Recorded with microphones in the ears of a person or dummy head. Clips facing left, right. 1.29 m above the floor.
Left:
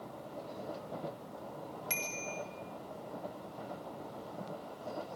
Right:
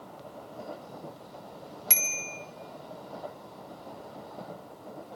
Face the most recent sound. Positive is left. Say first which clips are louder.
# even
turn(degrees=-70)  # may be behind; listen again after turning